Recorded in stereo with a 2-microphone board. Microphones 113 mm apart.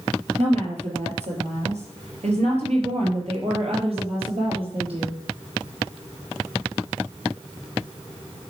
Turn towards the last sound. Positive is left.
turn(degrees=-50)  # may be behind; listen again after turning